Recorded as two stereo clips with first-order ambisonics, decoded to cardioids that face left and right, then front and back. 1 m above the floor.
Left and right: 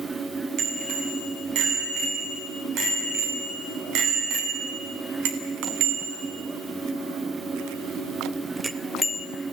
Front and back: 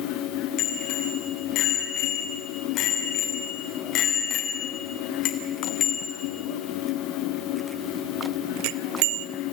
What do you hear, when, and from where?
0.6 s a bicycle bell: 45° right, 7 m; by 9.3 s 165° left, 1.2 m